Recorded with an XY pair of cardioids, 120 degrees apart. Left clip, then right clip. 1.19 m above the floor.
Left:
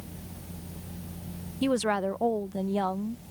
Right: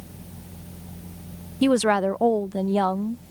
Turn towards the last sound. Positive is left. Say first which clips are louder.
# right 7 dB
turn(degrees=-35)